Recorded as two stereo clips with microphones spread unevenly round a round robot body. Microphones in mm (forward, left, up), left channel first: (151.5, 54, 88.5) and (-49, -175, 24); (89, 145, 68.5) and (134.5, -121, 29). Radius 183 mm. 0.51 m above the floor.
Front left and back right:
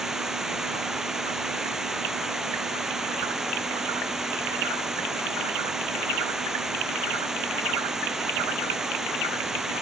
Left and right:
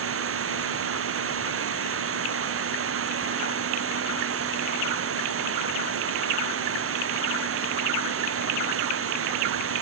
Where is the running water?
45° right.